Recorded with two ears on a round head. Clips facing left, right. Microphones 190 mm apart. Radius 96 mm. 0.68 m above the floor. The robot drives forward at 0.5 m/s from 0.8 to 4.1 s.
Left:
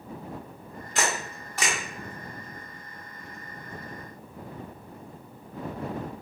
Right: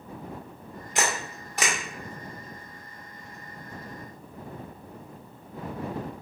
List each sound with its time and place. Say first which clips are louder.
0.9 s a camera shutter: even; 15° right (ahead or behind), 1.7 m